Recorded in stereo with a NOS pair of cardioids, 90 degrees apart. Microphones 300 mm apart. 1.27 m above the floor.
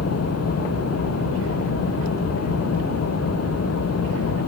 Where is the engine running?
55° left.